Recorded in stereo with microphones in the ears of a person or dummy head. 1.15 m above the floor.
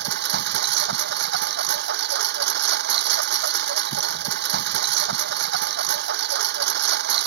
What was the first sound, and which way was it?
A lawn mower, 55° right (ahead or behind).